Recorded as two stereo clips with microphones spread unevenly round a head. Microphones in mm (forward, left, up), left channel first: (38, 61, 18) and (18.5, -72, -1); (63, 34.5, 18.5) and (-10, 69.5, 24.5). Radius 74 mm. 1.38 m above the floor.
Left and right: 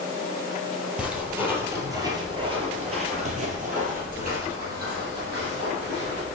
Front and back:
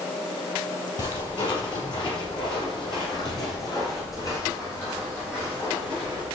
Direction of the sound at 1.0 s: 10° right.